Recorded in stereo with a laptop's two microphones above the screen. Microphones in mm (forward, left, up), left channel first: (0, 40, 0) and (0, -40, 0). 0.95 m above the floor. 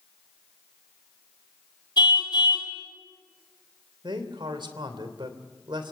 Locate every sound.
2.0 s a car horn: 70° left (ahead or behind), 3.5 m
4.0 s a man speaking: 85° right, 3 m